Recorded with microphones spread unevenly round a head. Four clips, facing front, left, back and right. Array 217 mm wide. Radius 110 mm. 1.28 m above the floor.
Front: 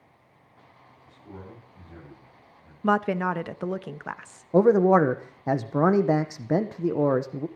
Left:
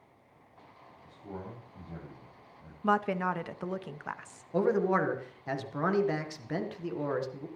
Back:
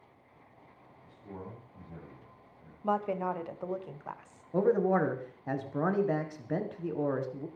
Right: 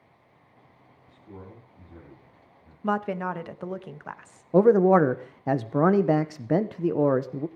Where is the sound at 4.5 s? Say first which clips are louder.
Right 10 dB, front 9 dB; 45° right, 1.1 m.